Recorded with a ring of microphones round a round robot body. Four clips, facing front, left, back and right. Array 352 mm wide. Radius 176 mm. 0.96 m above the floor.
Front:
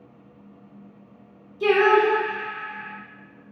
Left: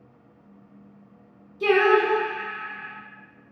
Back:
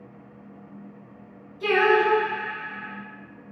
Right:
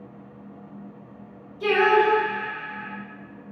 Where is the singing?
35° left, 1.1 m.